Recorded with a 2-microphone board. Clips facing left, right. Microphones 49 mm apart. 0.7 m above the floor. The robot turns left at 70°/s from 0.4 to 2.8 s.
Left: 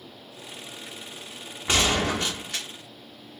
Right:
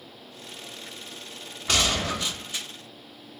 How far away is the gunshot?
About 1.3 m.